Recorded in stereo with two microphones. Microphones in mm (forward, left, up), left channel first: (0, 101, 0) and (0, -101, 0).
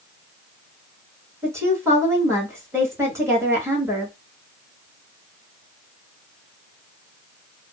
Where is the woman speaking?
15° right (ahead or behind), 1.6 m.